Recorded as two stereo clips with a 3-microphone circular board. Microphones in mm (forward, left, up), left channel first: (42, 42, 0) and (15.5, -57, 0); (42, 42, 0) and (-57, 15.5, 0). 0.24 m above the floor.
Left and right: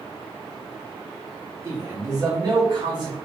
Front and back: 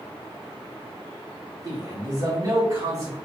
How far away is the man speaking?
About 2 m.